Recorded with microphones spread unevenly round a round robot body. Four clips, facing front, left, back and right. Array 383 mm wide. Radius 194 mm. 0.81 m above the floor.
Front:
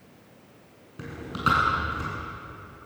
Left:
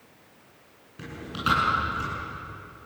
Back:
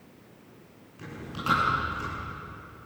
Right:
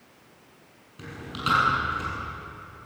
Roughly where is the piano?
I don't hear a piano.